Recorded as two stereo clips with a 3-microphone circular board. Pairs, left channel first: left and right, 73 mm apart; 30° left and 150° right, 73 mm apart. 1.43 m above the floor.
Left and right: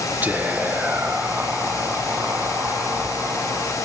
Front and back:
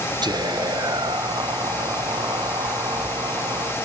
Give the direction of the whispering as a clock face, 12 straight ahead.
5 o'clock.